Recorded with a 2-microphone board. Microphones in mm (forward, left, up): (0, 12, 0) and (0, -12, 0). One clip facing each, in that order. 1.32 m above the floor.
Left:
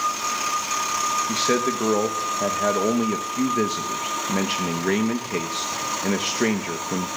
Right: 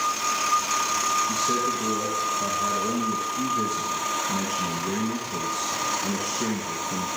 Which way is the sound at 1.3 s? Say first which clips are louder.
Left 3 dB; 70° left (ahead or behind).